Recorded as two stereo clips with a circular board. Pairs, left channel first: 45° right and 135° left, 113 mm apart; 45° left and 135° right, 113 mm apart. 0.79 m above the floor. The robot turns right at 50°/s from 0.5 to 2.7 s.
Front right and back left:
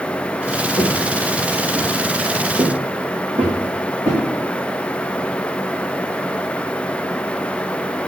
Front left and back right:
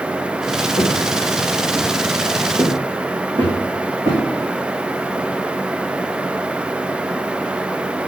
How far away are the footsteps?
About 2 m.